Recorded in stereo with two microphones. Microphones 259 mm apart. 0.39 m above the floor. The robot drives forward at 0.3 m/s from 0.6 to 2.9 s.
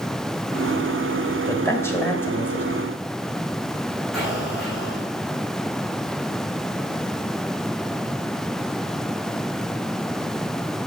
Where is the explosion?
Centre (ahead or behind), 3.5 m.